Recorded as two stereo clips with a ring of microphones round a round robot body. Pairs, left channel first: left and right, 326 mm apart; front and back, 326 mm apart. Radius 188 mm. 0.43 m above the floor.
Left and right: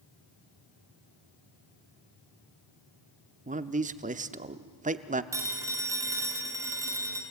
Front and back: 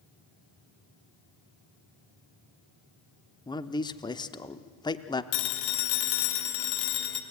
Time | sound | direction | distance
3.5 | a man speaking | 60° right | 0.8 m
5.3 | a phone ringing | 10° right | 2 m